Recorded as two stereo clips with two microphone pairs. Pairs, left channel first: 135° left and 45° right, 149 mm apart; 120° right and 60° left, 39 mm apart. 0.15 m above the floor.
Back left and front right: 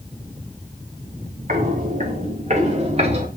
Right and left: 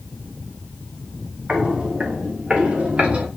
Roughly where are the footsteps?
Ahead.